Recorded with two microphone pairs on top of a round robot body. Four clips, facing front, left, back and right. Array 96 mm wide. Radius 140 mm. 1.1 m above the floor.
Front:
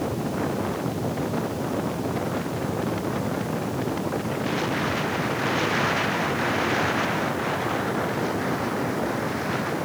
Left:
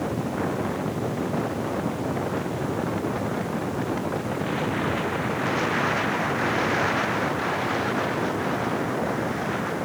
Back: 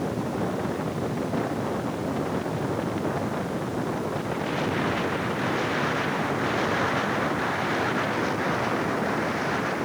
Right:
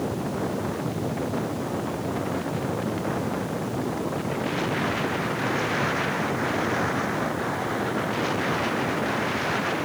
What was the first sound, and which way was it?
Only background noise.